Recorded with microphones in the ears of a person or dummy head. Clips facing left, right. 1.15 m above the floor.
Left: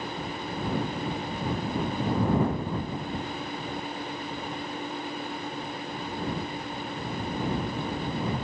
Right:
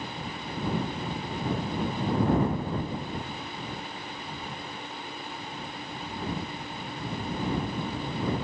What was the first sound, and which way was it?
Only background noise.